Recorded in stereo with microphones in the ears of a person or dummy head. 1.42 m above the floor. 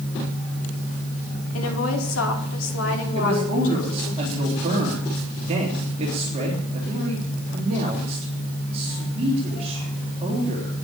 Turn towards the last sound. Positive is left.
turn(degrees=-30)  # may be behind; listen again after turning